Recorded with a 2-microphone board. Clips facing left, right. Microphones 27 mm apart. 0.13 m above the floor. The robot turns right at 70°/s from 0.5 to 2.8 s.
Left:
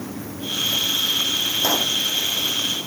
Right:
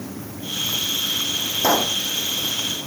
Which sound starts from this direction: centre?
A pop, at 1.6 s.